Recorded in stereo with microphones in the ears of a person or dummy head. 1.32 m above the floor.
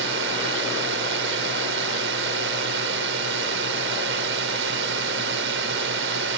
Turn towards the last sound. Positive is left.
turn(degrees=-75)  # may be behind; listen again after turning